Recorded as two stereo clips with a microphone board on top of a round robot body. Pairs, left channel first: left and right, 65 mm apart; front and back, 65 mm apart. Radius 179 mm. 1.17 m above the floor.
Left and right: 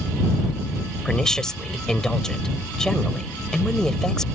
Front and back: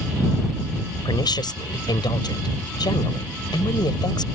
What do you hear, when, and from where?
1.1 s a woman speaking: 10° left